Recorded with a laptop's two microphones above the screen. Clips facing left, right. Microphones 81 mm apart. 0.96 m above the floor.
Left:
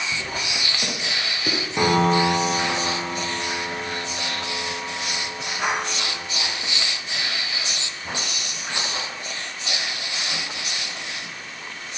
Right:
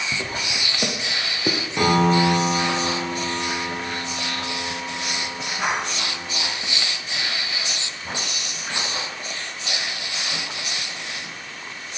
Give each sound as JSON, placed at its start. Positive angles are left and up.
{"t": 0.1, "sound": "footsteps", "side_deg": -40, "distance_m": 3.0}
{"t": 1.8, "sound": "a piano", "side_deg": 10, "distance_m": 4.5}